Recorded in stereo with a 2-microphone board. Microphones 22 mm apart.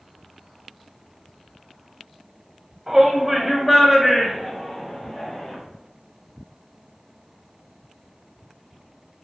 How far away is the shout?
About 1.7 m.